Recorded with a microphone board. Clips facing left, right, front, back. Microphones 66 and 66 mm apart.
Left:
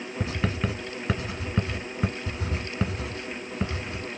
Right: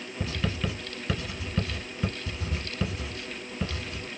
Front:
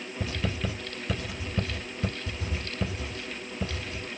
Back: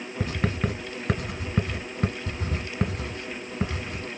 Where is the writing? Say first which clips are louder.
Left 2 dB, back 5 dB; 150° left, 1.3 m.